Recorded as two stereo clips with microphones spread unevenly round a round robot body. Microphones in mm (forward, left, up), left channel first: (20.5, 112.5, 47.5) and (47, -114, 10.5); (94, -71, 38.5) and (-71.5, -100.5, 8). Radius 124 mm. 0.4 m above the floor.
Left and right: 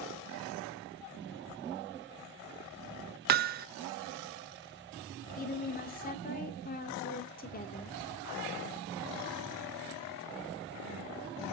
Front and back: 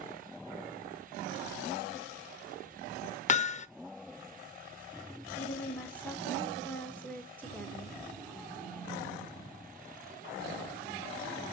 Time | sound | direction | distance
3.3 | hammering | 45° right | 0.6 m
5.4 | a woman speaking | 100° left | 0.8 m